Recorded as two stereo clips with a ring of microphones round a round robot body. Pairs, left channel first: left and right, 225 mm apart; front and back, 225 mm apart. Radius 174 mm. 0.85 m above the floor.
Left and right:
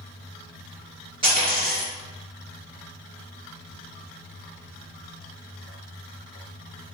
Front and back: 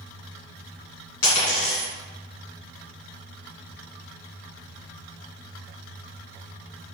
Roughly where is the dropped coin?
Ahead.